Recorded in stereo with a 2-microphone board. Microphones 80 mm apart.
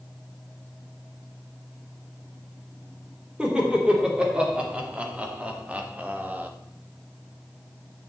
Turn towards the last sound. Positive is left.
turn(degrees=-20)  # may be behind; listen again after turning